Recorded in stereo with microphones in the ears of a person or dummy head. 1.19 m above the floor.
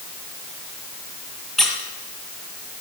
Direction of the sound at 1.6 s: Centre (ahead or behind).